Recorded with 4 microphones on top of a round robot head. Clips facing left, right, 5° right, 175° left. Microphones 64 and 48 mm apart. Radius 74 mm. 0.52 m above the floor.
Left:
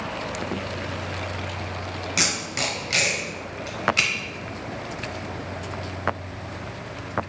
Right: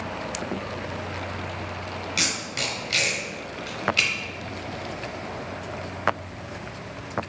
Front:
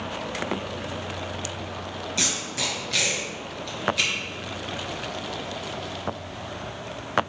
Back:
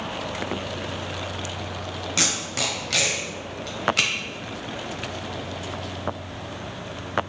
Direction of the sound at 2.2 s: 155° left.